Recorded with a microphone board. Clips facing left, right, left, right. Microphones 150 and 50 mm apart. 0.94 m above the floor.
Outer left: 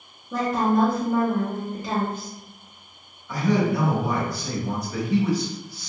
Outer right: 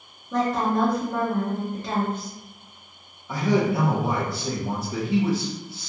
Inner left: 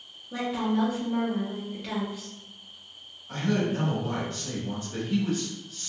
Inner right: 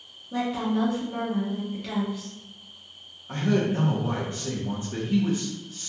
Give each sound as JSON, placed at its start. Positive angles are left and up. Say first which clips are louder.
{"t": 0.3, "sound": "a woman speaking", "louder": "outer left 1 dB, inner right 1 dB", "side_deg": 5, "distance_m": 0.5}
{"t": 3.3, "sound": "a man speaking", "louder": "even, inner right 3 dB", "side_deg": -25, "distance_m": 0.8}